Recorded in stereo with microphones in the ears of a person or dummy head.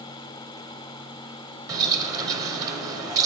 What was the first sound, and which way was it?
A bird, 15° right (ahead or behind).